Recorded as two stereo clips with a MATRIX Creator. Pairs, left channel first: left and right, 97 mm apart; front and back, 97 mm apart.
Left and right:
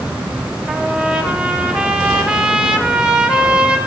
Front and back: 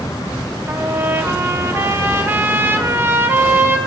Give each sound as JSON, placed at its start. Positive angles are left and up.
{"t": 0.7, "sound": "a trumpet", "azimuth_deg": -160, "distance_m": 0.9}